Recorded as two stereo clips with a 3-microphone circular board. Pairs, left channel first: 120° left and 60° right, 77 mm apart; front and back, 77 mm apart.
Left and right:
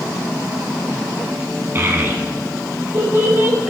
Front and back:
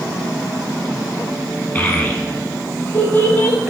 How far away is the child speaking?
About 0.8 m.